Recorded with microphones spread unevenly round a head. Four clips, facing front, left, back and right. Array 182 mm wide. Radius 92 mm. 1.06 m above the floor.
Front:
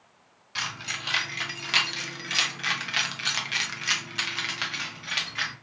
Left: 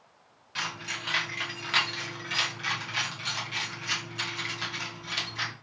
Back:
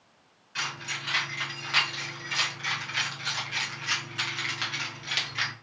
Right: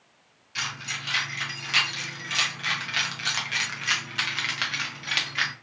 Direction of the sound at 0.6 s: 25° left.